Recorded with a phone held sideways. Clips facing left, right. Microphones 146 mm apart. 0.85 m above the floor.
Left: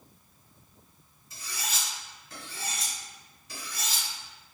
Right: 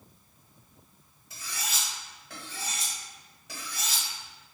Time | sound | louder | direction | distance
1.3 | cutlery clinking | even | 70° right (ahead or behind) | 1.8 m